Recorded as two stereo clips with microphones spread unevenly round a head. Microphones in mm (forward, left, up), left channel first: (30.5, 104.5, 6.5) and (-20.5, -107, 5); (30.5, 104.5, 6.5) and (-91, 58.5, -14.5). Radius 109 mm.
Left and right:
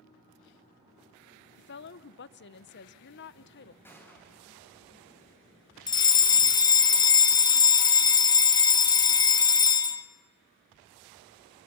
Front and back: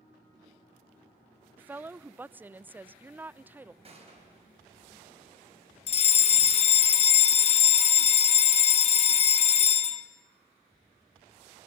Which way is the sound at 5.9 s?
15° left.